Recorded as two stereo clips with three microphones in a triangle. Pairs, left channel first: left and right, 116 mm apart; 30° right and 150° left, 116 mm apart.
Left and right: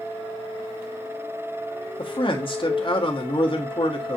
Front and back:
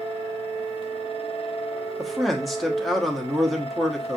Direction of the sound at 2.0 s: 60° left.